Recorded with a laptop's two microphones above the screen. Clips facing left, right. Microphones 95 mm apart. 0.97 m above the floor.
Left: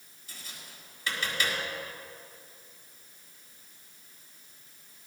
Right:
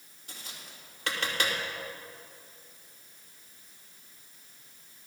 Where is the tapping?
70° right (ahead or behind), 2.5 m.